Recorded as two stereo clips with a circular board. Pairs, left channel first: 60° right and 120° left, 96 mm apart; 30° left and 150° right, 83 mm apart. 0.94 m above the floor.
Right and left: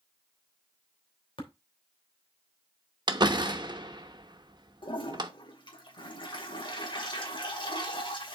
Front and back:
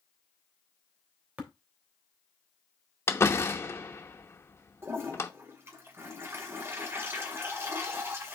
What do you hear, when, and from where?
1.4 s tapping: 80° right, 2.5 m
3.1 s a door slam: 85° left, 1.0 m
4.8 s a toilet flushing: 90° right, 2 m